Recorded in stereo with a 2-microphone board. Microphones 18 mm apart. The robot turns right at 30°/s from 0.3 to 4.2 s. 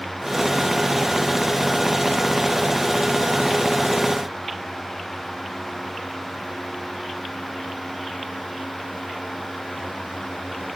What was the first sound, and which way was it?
Only background noise.